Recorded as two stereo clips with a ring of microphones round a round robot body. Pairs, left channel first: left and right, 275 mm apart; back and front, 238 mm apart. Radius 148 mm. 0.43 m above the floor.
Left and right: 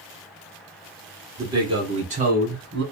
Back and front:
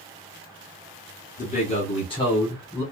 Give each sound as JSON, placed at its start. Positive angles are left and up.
{"t": 1.4, "sound": "a man speaking", "azimuth_deg": -160, "distance_m": 1.2}